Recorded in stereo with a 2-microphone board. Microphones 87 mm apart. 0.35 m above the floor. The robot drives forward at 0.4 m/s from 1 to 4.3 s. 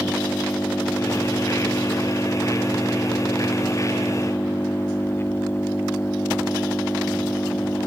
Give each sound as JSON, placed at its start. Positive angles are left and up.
{"t": 0.0, "sound": "an engine running", "side_deg": 25}